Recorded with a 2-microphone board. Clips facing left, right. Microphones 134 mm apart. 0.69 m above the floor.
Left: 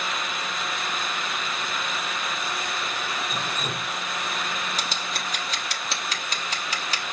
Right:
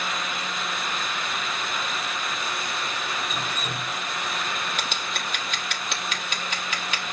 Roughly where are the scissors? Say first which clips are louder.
Even; left.